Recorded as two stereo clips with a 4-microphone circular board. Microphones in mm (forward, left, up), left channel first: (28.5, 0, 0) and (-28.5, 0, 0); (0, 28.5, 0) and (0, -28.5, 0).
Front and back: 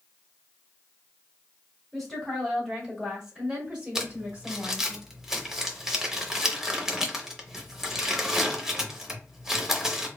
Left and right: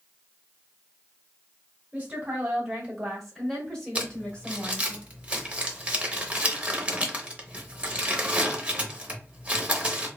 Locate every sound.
1.9 s a woman speaking: 75° right, 1.4 m; by 5.0 s 135° left, 1.7 m
4.0 s crumpling: 115° right, 0.6 m